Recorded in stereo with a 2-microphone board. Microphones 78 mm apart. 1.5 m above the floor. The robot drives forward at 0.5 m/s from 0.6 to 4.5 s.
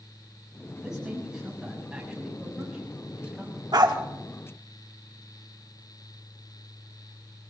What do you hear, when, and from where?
0.8 s a man speaking: 10° right (ahead or behind), 9.5 m
3.7 s a dog barking: 60° right (ahead or behind), 1.7 m